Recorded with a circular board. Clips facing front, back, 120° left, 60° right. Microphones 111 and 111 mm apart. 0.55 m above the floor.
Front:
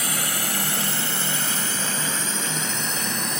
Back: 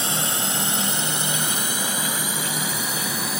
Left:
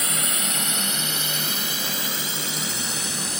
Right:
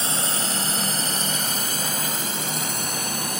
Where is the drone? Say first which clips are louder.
Back 2 dB, right 2 dB; 115° right; by 3.4 s 95° right.